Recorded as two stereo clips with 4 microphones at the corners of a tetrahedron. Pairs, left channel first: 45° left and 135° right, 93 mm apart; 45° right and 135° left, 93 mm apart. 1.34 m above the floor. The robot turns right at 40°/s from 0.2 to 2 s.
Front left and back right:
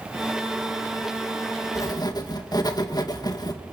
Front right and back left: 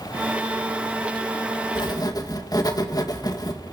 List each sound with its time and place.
1.8 s writing: 10° right, 1.8 m; by 3.6 s straight ahead, 1.8 m